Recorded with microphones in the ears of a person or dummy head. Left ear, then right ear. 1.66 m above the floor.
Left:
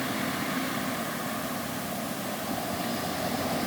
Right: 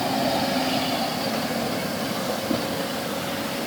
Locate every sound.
Only background noise.